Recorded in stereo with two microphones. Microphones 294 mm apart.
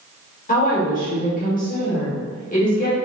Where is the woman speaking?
25° left (ahead or behind), 1.2 m.